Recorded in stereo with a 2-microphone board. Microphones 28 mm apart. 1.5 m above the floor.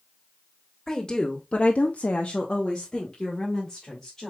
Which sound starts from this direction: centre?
A woman speaking, at 0.9 s.